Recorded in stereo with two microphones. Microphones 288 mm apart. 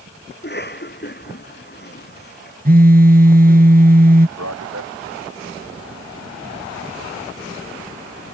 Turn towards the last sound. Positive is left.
turn(degrees=-65)  # may be behind; listen again after turning